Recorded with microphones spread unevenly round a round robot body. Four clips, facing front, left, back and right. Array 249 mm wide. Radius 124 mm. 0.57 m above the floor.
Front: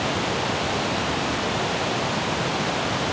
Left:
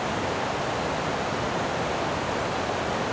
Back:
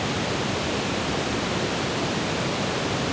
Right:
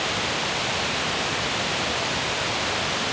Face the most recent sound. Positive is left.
No sound to turn to.